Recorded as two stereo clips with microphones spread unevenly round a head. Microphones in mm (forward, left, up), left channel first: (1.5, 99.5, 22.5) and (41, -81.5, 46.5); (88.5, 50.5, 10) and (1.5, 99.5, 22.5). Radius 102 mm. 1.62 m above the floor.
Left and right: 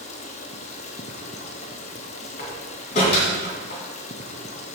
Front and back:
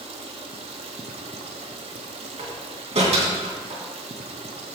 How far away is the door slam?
About 2.5 m.